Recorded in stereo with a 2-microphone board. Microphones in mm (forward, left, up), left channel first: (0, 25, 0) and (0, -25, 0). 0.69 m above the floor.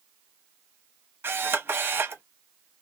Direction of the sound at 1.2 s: 50° right (ahead or behind).